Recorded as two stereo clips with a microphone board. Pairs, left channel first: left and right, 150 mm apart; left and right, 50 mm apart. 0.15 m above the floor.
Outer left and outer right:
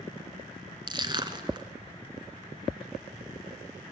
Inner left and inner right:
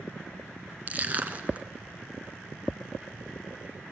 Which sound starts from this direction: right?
Crushing, at 0.9 s.